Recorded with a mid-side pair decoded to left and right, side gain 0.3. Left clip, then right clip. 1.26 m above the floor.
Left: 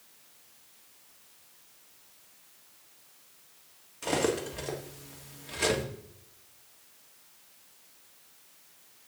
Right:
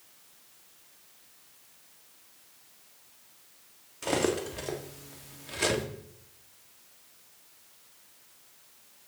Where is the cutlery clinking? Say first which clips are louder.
Even; 10° right, 1.7 m.